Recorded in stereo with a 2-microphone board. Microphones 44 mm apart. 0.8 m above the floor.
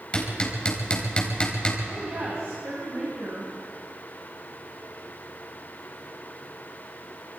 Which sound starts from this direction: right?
A woman speaking, at 1.9 s.